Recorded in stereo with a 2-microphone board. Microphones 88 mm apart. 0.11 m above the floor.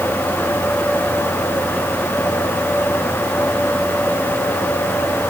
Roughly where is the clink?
I don't hear a clink.